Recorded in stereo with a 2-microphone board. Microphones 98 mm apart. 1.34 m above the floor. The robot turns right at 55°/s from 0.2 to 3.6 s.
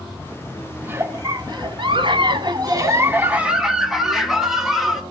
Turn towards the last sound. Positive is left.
turn(degrees=-5)